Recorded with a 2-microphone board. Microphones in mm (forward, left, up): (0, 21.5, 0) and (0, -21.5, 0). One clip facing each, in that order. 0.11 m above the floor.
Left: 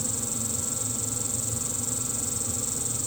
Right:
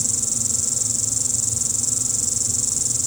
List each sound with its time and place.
0.0 s an insect: 80° right, 1.1 m